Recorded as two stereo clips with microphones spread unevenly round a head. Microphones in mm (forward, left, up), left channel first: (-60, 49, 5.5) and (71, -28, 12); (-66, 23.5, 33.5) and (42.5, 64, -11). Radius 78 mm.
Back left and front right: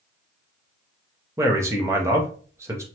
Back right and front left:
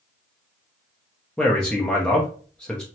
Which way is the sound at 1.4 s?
95° right.